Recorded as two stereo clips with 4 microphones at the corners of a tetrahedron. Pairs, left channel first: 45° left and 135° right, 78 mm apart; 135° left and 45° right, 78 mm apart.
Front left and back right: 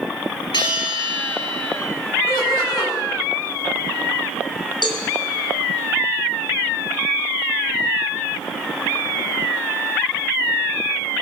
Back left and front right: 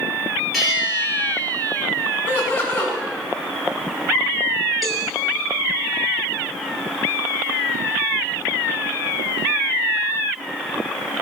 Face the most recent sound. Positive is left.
turn(degrees=45)